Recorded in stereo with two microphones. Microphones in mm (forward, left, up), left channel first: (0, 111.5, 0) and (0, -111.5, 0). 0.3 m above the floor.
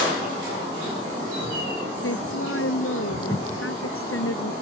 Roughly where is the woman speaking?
Left.